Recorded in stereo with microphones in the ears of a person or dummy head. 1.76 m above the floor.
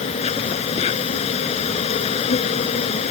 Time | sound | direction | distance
0.0 | an insect | 35° left (ahead or behind) | ?